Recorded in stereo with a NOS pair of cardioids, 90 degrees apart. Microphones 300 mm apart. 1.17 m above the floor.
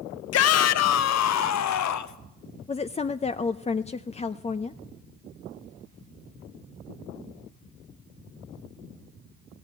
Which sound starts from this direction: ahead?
A woman speaking, at 2.7 s.